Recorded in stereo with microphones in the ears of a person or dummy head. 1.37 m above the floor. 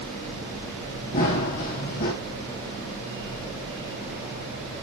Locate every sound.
1.1 s running footsteps: 45° left (ahead or behind), 3.5 m